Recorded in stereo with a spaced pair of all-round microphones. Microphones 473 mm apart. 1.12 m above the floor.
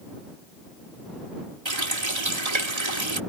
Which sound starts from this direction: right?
A running tap, at 1.6 s.